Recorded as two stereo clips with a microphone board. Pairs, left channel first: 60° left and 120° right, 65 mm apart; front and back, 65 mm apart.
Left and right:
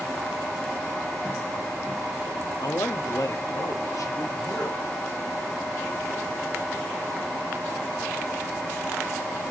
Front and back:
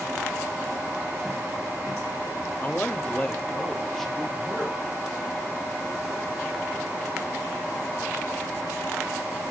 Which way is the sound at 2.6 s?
55° left.